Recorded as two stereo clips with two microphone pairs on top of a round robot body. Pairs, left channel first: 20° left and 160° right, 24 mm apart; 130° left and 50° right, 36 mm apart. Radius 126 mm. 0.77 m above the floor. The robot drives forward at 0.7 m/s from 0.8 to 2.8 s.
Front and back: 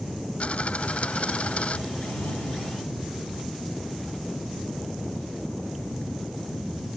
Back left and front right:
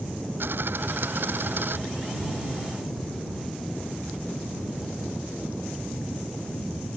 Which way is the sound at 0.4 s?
15° right.